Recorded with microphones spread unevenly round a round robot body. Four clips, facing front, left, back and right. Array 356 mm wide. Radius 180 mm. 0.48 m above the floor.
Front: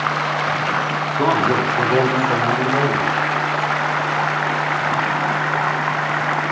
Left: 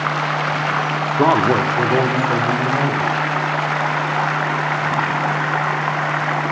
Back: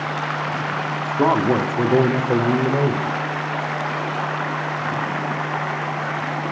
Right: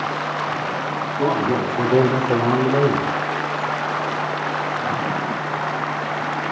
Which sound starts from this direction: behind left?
A man speaking, at 1.2 s.